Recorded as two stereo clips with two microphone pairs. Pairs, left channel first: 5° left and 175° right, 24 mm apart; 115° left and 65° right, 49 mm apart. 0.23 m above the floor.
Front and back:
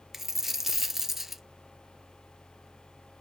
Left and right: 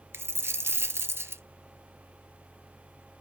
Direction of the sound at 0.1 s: 95° right.